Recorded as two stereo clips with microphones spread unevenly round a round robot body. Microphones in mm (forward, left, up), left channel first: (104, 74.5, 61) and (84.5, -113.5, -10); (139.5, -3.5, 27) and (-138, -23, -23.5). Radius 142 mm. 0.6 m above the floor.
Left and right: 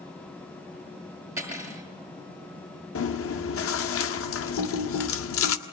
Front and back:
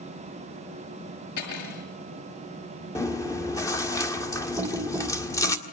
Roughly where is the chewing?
Left.